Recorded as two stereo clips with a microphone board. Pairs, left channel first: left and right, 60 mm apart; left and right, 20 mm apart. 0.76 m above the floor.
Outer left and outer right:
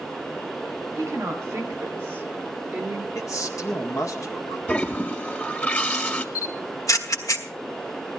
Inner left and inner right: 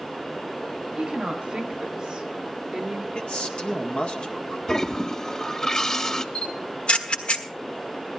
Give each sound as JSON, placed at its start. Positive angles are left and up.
{"t": 1.0, "sound": "a woman speaking", "side_deg": -50, "distance_m": 2.5}
{"t": 3.1, "sound": "a man speaking", "side_deg": 65, "distance_m": 1.9}
{"t": 4.7, "sound": "a toilet flushing", "side_deg": 30, "distance_m": 1.6}
{"t": 6.3, "sound": "a camera shutter", "side_deg": 65, "distance_m": 1.3}